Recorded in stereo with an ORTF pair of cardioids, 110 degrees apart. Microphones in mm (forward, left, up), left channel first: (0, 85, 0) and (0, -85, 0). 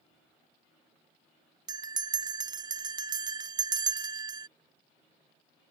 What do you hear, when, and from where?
1.7 s a bell: 25° right